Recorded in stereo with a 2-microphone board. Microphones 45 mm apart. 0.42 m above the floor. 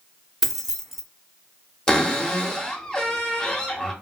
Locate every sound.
0.4 s keys jangling: 5° right (ahead or behind), 0.5 m
1.9 s a cupboard door: 15° left (ahead or behind), 0.8 m